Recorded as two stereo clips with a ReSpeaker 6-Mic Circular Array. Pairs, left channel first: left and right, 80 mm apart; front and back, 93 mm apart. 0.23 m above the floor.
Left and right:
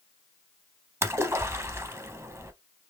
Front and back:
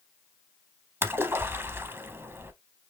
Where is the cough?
I don't hear a cough.